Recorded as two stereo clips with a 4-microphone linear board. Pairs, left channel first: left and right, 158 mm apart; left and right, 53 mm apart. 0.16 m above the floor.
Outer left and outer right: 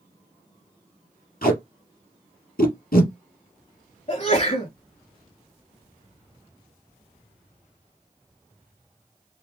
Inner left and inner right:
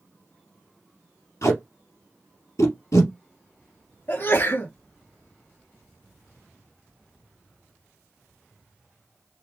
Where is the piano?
I don't hear a piano.